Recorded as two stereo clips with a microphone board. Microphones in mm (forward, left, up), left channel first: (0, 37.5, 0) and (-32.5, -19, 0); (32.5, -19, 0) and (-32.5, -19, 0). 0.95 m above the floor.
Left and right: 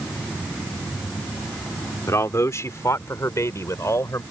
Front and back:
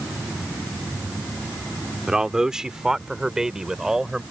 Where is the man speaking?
100° left.